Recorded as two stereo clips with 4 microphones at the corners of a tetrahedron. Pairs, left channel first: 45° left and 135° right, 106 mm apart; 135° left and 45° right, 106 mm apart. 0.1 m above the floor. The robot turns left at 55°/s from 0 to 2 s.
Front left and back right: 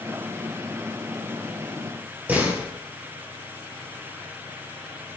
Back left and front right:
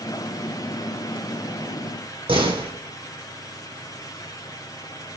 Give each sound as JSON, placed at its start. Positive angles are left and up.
{"t": 2.3, "sound": "a door slam", "azimuth_deg": -60, "distance_m": 2.5}